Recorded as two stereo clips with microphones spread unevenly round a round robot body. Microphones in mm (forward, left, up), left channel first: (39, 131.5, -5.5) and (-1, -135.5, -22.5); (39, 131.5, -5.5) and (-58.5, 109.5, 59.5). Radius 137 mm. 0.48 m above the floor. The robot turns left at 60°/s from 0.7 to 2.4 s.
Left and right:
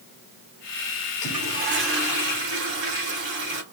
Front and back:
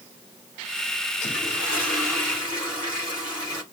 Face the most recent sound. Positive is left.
turn(degrees=-90)